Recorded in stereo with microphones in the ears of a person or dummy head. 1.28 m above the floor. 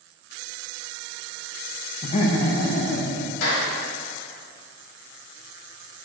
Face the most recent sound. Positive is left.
turn(degrees=70)  # may be behind; listen again after turning